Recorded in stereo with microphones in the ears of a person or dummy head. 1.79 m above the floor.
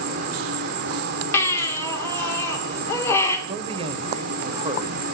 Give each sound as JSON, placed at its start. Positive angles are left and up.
{"t": 0.0, "sound": "an insect", "side_deg": -55, "distance_m": 1.2}
{"t": 1.3, "sound": "a baby crying", "side_deg": 15, "distance_m": 2.5}
{"t": 3.5, "sound": "a man speaking", "side_deg": -30, "distance_m": 1.1}